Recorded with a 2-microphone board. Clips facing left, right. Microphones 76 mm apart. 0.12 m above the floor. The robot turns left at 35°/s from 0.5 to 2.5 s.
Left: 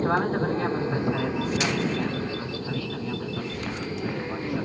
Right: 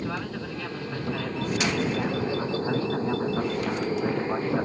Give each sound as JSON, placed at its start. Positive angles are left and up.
{"t": 0.0, "sound": "an aircraft", "azimuth_deg": 40}